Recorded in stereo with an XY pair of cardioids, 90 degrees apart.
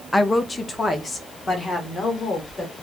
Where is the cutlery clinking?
No cutlery clinking in this recording.